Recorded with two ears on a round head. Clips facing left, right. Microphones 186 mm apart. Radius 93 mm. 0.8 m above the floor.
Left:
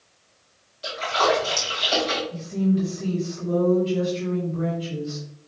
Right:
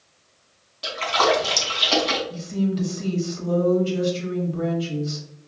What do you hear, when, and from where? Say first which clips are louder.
0.8 s a splash: right 1 dB; 70° right (ahead or behind), 1.7 m
2.3 s a woman speaking: left 2 dB; 65° right (ahead or behind), 1.7 m